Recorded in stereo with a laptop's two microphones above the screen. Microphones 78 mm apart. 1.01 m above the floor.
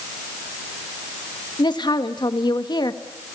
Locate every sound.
1.6 s a woman speaking: 70° left (ahead or behind), 1.6 m